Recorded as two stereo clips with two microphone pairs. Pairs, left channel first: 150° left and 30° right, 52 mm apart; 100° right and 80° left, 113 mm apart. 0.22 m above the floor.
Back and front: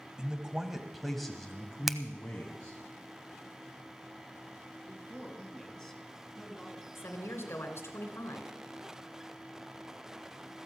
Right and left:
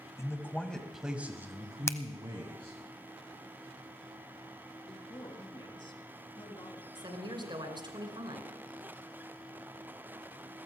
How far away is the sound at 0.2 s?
About 1.2 m.